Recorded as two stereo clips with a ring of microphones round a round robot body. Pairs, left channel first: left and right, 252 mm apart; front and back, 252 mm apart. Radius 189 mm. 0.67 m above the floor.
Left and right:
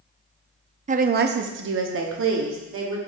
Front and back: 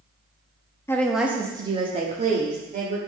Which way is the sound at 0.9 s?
70° right.